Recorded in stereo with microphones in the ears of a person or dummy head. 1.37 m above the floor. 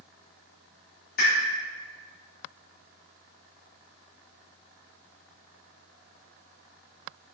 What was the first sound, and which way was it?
A pop, 55° left (ahead or behind).